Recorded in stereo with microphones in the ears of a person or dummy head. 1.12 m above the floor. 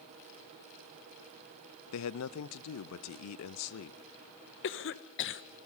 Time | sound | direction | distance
1.9 | a man speaking | 75° left (ahead or behind) | 0.7 m
4.6 | a cough | 50° left (ahead or behind) | 1.1 m